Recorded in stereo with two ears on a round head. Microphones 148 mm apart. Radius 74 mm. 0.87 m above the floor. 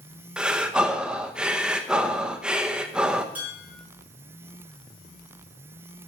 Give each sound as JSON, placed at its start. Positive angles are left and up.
{"t": 0.4, "sound": "breathing", "side_deg": -5, "distance_m": 0.8}
{"t": 3.4, "sound": "dishes clattering", "side_deg": -10, "distance_m": 6.5}